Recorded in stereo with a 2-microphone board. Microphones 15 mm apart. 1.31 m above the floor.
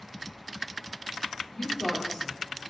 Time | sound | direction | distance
1.5 | a woman speaking | 80° left | 4 m